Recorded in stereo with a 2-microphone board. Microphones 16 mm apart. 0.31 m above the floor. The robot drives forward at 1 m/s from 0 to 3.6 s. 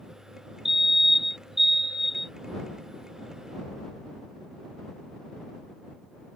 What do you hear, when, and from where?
0.7 s a fire alarm: 20° right (ahead or behind); by 2.3 s 15° right (ahead or behind)